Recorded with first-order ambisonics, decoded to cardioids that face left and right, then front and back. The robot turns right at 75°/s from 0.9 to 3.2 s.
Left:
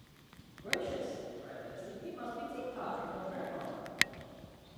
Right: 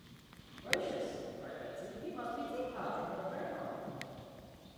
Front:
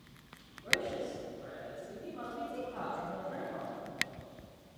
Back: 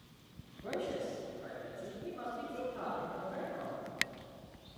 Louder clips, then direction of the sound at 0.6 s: Even, front 5 dB; 155° right.